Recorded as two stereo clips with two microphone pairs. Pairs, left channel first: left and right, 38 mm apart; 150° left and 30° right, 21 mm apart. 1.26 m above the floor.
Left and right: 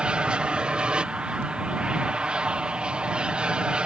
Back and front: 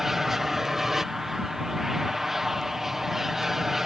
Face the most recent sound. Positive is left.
turn(degrees=-75)